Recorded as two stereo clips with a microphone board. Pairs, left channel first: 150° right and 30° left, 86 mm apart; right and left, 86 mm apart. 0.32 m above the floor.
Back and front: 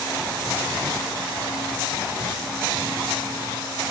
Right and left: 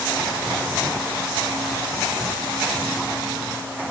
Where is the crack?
No crack in this recording.